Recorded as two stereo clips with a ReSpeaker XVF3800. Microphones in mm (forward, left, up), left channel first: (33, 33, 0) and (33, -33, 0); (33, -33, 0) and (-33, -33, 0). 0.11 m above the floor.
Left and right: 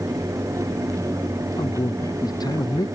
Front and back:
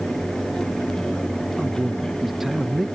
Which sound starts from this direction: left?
A man speaking, at 1.6 s.